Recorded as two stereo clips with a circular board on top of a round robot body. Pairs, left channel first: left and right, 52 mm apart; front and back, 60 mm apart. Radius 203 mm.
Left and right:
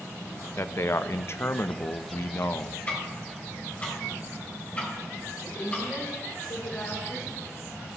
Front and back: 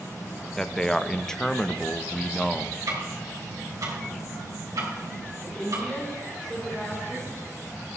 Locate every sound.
0.6 s a man speaking: 80° left, 0.8 m
2.9 s ticking: 150° left, 3 m
5.4 s a woman speaking: 85° left, 3 m